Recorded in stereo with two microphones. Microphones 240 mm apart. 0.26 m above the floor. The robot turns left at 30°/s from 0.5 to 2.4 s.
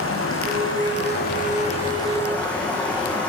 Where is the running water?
60° left, 5 m; by 3.3 s 5° left, 5 m.